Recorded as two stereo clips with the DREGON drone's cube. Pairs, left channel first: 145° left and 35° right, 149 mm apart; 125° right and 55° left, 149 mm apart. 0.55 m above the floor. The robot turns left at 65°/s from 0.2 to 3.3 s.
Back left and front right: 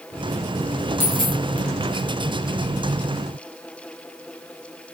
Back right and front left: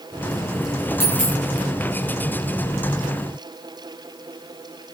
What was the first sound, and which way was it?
A dropped coin, 105° left.